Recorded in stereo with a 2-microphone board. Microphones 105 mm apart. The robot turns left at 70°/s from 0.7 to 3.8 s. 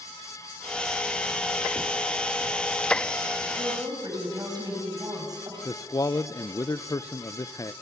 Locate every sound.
3.6 s a woman speaking: 50° right (ahead or behind), 6 m; by 5.5 s 35° right (ahead or behind), 6 m
5.7 s a man speaking: 35° left (ahead or behind), 0.5 m